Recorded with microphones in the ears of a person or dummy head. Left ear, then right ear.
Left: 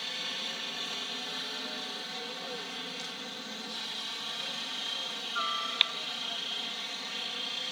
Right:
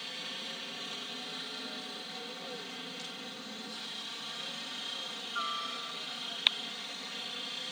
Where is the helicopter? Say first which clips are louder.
Left 5 dB; 25° left (ahead or behind); by 7.7 s 15° left (ahead or behind).